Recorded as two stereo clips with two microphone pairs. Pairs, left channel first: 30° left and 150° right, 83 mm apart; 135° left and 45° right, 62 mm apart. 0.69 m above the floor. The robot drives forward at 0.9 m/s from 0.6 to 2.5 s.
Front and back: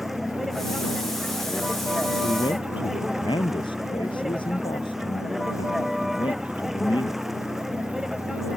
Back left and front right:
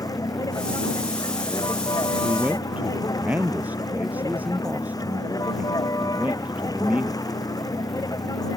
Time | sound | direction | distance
0.0 | a vehicle | 120° left | ?
2.2 | a man speaking | 20° left | ?